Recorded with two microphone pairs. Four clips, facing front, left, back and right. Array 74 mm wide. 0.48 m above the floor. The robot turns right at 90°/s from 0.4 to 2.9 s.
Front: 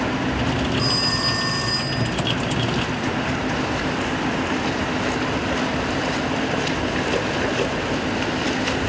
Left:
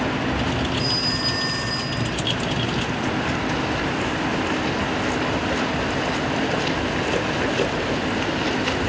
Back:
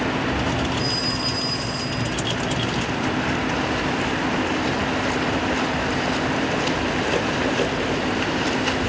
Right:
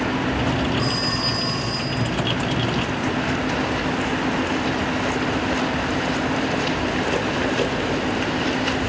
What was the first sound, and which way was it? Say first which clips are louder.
A phone ringing: right 2 dB, front 2 dB; 45° right.